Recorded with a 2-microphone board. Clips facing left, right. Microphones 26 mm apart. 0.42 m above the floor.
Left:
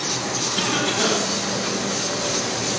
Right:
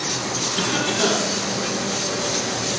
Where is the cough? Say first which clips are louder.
Even; 5° left (ahead or behind), 3.5 m.